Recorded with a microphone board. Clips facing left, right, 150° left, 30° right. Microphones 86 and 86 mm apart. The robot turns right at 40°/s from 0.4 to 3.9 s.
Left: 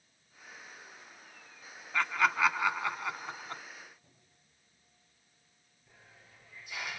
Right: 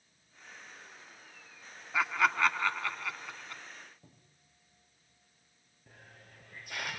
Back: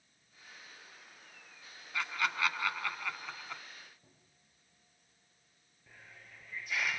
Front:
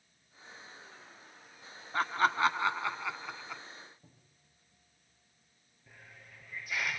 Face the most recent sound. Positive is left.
turn(degrees=-120)